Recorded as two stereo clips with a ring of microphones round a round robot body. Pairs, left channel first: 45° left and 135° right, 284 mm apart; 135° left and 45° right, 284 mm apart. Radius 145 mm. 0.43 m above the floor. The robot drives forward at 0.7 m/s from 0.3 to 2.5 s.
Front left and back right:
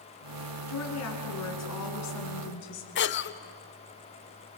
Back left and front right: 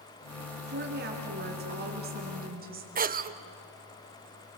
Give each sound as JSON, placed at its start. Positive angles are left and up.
{"t": 0.7, "sound": "a woman speaking", "azimuth_deg": 10, "distance_m": 5.0}
{"t": 3.0, "sound": "a cough", "azimuth_deg": 5, "distance_m": 1.0}